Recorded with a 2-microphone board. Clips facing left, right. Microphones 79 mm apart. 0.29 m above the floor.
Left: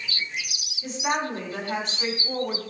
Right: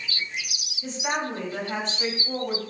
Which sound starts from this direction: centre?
A woman speaking, at 0.8 s.